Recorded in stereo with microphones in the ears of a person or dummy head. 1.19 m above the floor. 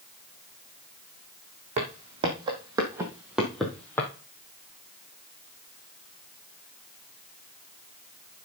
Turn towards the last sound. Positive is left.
turn(degrees=15)  # may be behind; listen again after turning